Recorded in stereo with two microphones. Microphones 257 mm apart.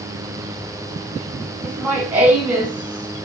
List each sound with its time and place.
1.6 s laughter: 5° right (ahead or behind), 2.0 m